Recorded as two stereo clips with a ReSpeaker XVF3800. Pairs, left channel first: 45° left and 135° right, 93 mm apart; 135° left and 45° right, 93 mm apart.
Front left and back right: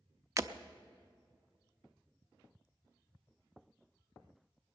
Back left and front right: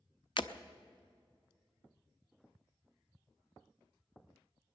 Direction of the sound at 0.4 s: 170° left.